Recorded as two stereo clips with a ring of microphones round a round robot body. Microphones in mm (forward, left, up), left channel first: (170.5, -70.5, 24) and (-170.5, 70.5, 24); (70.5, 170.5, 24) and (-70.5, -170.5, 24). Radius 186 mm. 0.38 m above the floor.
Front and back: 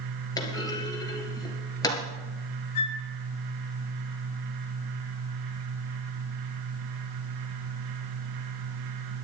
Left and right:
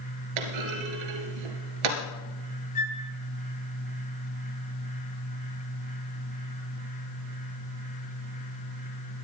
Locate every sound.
0.4 s a clunk: 105° right, 2 m
2.8 s a flute: straight ahead, 2.5 m